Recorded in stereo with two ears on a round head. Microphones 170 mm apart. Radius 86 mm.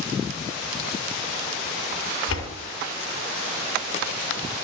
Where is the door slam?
75° left (ahead or behind), 3.5 m.